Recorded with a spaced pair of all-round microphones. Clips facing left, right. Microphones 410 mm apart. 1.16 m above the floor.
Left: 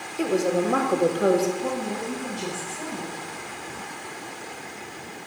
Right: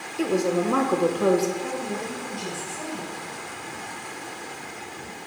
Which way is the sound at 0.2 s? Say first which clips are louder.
Even; 5° right (ahead or behind).